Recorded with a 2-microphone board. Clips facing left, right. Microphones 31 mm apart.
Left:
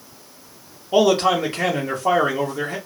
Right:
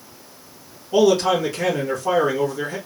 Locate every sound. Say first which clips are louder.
0.9 s a man speaking: even; 40° left (ahead or behind), 1.0 m